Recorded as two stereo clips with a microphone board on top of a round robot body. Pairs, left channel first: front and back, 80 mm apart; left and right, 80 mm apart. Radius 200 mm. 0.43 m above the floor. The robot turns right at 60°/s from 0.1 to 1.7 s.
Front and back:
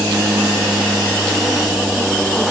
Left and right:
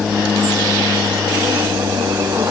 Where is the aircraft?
Straight behind; by 2.5 s 85° right.